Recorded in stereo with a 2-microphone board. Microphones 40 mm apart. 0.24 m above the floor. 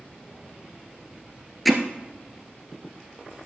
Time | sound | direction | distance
1.6 | hammering | centre (ahead or behind) | 1.2 m